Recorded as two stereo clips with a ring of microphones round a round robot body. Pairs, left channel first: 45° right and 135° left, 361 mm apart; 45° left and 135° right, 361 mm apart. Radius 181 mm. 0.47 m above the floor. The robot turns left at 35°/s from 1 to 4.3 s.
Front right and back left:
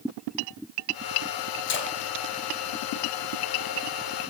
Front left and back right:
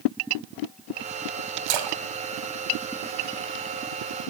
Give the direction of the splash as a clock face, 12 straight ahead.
3 o'clock.